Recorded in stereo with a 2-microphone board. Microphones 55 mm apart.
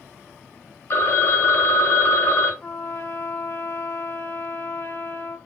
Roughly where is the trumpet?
Left.